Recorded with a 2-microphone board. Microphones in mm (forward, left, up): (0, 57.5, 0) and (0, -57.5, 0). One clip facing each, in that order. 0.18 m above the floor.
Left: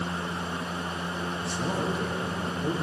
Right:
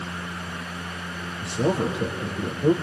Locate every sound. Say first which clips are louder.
1.4 s a man speaking: right 8 dB; 75° right (ahead or behind), 5.5 m